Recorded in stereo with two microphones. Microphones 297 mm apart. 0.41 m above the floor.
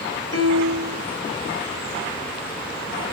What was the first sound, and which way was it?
A piano, 50° left (ahead or behind).